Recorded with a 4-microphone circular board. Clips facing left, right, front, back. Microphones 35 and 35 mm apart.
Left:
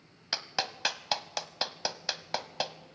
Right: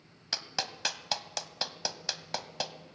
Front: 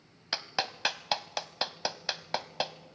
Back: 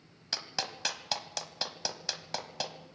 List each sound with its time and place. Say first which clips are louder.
0.3 s a clap: left 2 dB, front 4 dB; 30° left, 0.9 m